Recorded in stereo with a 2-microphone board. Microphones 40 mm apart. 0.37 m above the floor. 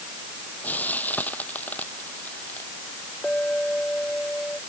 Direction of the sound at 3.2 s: 30° left (ahead or behind).